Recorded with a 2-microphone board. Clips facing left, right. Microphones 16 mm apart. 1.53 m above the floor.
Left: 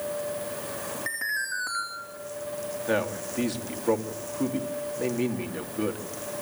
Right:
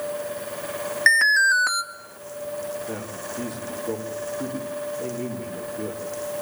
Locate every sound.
1.1 s an alarm: 70° right (ahead or behind), 3.5 m
2.9 s a man speaking: 65° left (ahead or behind), 3 m